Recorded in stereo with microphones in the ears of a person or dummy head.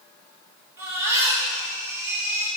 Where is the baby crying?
15° right (ahead or behind), 3.5 m.